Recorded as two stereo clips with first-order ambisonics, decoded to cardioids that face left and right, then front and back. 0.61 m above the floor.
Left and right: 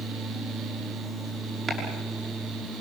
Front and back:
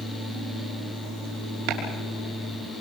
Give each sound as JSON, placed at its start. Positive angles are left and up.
{"t": 1.7, "sound": "chopping", "azimuth_deg": -160, "distance_m": 6.0}